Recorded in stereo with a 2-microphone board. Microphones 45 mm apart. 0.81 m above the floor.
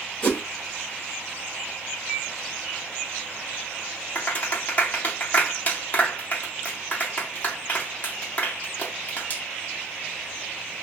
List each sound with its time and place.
0.2 s a whoosh: 25° left (ahead or behind), 4 m
2.1 s a microwave: 10° left (ahead or behind), 1.4 m
4.2 s a clap: 35° left (ahead or behind), 1.6 m